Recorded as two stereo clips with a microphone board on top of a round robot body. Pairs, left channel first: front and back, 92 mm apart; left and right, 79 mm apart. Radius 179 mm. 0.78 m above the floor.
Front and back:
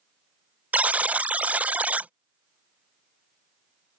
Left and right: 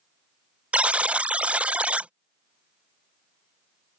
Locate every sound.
0.7 s a buzzer: 135° right